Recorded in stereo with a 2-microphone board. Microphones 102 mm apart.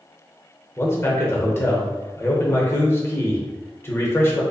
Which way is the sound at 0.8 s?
25° left (ahead or behind).